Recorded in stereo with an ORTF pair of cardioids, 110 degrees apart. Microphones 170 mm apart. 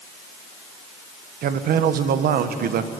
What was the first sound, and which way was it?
A man speaking, 60° right.